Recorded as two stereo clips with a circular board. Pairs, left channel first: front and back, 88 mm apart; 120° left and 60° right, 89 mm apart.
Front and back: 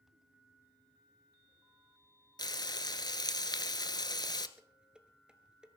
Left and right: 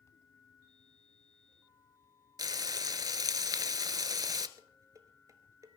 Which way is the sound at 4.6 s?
105° right.